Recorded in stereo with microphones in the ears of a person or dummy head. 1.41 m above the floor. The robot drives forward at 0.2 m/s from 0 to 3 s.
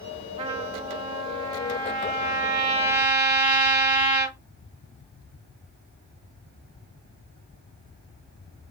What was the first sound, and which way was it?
A trumpet, 30° right (ahead or behind).